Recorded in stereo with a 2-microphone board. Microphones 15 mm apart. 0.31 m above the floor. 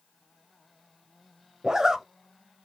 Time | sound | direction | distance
1.6 | a zipper | 45° right (ahead or behind) | 0.5 m